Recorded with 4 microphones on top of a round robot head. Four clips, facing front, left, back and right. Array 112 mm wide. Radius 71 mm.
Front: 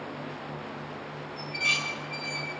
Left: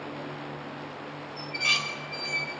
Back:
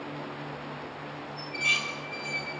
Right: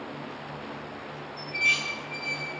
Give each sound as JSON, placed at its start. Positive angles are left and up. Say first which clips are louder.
{"t": 1.4, "sound": "dishes clattering", "louder": "right 1 dB, front 1 dB", "azimuth_deg": 75, "distance_m": 2.5}